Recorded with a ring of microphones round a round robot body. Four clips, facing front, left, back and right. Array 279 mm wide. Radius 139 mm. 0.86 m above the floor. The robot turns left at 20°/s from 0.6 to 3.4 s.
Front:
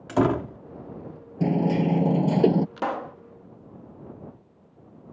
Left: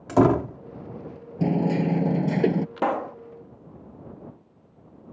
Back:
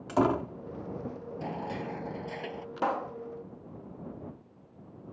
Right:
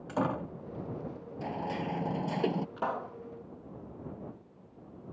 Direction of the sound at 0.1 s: 75° left.